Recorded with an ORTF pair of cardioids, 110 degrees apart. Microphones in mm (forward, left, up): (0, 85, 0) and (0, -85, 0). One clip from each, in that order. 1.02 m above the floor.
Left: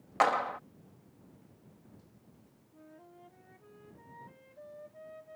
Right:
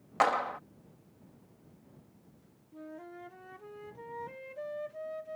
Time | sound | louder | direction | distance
0.2 | a clap | even | straight ahead | ?
2.7 | a flute | right 9 dB | 55° right | ?